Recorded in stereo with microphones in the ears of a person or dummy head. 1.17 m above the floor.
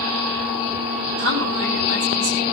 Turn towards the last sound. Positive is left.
turn(degrees=-70)  # may be behind; listen again after turning